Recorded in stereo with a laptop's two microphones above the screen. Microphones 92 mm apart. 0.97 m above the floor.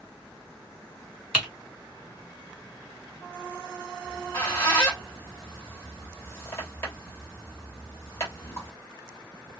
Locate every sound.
1.3 s typing on a keyboard: 10° right (ahead or behind), 1.3 m
4.0 s a squeak: 25° left (ahead or behind), 0.8 m